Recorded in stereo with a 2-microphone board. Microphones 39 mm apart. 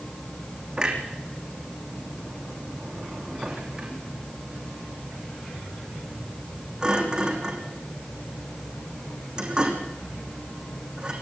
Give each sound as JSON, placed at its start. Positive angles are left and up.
{"t": 0.8, "sound": "a clunk", "side_deg": -25, "distance_m": 5.0}